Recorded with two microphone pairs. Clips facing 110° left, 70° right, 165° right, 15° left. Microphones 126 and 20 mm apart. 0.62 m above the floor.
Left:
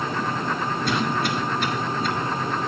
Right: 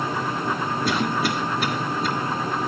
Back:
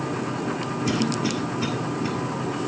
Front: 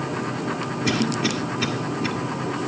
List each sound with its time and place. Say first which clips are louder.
0.8 s a cough: right 1 dB, front 2 dB; 15° left, 1.9 m